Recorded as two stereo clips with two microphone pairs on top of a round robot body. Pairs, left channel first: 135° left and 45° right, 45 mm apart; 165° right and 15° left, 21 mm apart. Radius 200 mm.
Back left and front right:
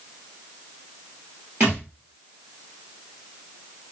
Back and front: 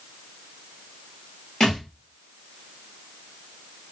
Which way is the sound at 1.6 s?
95° right.